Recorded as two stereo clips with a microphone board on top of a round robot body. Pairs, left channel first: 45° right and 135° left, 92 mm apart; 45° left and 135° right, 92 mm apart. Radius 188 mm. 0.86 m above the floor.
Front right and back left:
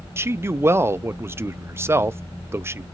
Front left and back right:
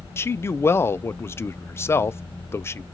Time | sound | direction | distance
0.2 | a man speaking | 90° left | 0.5 m